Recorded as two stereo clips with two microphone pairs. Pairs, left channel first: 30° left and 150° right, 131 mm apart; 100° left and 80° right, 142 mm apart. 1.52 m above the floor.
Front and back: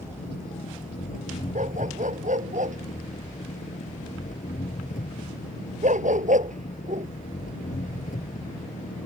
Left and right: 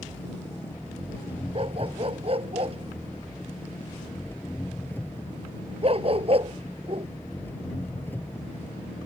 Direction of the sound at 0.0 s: 25° left.